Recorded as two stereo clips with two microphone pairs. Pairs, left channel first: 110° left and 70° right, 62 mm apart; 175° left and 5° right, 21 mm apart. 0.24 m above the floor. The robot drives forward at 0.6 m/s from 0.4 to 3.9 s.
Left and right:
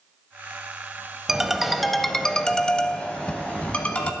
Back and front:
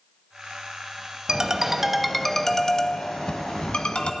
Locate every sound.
1.3 s a ringtone: 5° left, 0.9 m; by 4.1 s straight behind, 1.3 m